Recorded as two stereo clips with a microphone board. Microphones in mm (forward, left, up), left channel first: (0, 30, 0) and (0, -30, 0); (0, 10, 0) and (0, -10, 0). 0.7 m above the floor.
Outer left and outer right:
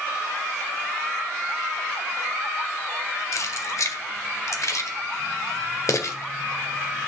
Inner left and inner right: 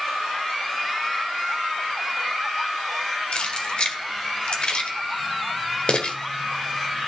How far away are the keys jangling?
About 1.5 m.